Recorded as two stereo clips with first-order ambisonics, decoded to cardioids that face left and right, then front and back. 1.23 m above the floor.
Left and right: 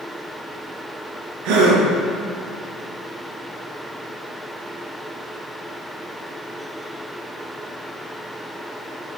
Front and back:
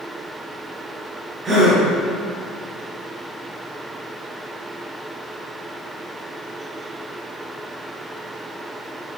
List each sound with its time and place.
1.4 s a gasp: 110° right, 4 m